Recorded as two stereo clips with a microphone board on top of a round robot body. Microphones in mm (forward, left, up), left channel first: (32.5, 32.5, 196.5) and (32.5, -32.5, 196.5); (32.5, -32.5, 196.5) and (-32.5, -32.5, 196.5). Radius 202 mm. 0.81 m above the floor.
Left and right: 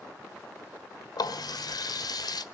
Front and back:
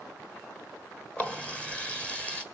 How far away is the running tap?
About 1.5 m.